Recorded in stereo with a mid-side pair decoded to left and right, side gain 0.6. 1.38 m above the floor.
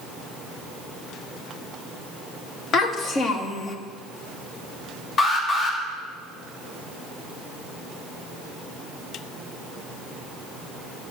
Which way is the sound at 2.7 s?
50° left.